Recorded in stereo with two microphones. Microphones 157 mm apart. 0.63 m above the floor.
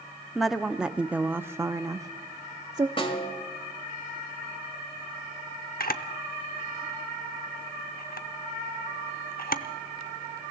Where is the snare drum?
35° left (ahead or behind), 2 m.